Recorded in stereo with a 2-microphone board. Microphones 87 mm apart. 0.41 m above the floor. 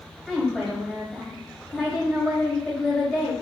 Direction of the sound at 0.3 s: Centre (ahead or behind).